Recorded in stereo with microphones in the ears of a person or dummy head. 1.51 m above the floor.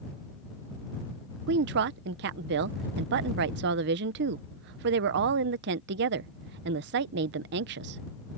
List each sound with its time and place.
1.5 s a woman speaking: 60° right (ahead or behind)